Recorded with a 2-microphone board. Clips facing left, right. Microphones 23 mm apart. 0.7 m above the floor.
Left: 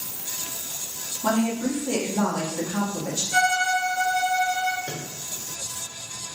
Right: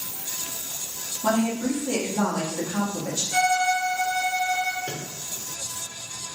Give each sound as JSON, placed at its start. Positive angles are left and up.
{"t": 1.2, "sound": "a woman speaking", "side_deg": 5, "distance_m": 1.0}
{"t": 3.3, "sound": "a violin", "side_deg": 30, "distance_m": 1.0}
{"t": 4.8, "sound": "a microwave", "side_deg": -60, "distance_m": 0.6}